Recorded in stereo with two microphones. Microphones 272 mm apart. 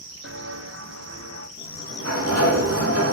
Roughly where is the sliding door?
Right.